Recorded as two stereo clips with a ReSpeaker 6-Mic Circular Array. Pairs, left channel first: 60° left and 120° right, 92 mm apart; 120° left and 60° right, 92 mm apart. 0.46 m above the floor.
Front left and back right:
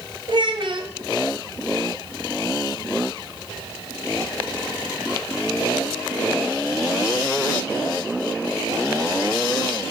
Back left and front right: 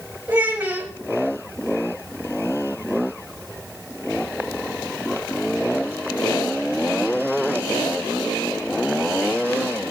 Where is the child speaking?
110° right, 0.9 m.